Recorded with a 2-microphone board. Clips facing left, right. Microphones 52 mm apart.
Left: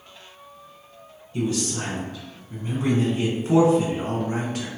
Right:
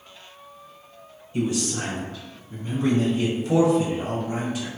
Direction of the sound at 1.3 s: 20° right (ahead or behind).